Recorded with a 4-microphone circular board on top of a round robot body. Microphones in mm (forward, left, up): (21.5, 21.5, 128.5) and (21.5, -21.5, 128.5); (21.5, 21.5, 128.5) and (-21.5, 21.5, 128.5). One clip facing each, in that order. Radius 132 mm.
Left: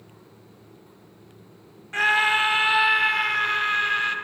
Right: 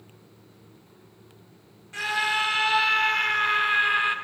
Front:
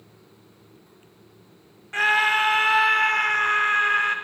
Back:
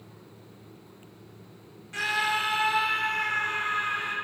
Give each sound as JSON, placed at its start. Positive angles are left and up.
{"t": 1.9, "sound": "a scream", "azimuth_deg": 45, "distance_m": 1.3}